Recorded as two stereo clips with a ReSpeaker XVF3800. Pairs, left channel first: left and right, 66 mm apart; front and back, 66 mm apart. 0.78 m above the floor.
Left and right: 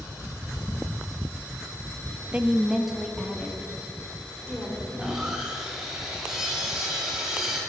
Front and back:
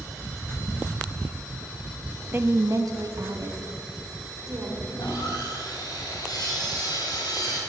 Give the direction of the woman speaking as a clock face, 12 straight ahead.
5 o'clock.